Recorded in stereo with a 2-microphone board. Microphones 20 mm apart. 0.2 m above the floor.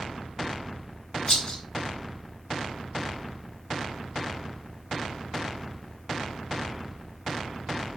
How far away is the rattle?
About 3 m.